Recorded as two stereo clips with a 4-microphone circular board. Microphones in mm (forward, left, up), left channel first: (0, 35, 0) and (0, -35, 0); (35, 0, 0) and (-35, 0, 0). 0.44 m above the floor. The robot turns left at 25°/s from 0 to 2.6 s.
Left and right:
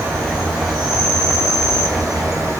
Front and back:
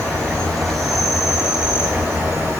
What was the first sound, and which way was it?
An insect, 65° right.